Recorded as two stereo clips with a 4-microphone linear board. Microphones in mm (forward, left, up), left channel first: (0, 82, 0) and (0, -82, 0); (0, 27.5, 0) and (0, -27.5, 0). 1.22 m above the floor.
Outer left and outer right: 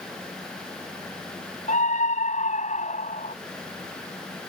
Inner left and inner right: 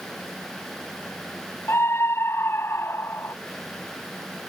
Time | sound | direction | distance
1.7 | a scream | 50° left (ahead or behind) | ?